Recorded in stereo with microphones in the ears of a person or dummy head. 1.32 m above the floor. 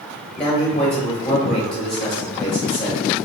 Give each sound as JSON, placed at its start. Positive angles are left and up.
{"t": 0.4, "sound": "a man speaking", "side_deg": 10, "distance_m": 1.8}